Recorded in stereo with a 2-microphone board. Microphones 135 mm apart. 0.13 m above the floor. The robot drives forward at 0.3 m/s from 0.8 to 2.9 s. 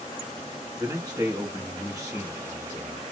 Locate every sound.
0.8 s a man speaking: 25° right (ahead or behind), 1.2 m